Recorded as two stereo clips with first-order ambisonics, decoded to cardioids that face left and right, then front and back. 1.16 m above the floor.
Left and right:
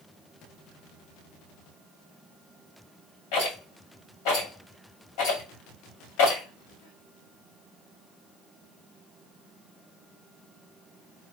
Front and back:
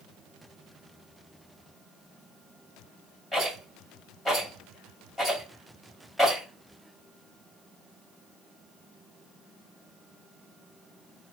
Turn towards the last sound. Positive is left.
turn(degrees=95)